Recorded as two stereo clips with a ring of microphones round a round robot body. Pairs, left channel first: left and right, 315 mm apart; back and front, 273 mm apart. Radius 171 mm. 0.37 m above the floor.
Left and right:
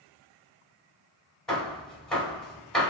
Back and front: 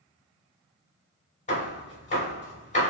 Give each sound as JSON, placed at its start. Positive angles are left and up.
{"t": 1.5, "sound": "hammering", "azimuth_deg": 175, "distance_m": 1.1}